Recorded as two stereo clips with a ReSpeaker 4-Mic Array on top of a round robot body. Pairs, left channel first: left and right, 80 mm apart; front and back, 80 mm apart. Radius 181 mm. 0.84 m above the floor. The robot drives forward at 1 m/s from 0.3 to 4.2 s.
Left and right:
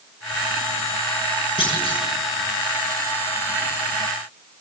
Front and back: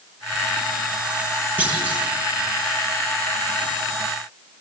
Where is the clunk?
110° left, 5.5 m; by 2.1 s 115° left, 6 m.